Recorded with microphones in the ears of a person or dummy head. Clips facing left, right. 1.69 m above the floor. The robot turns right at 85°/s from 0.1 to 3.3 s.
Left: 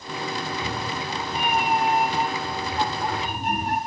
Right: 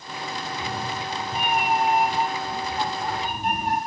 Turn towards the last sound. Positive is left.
turn(degrees=70)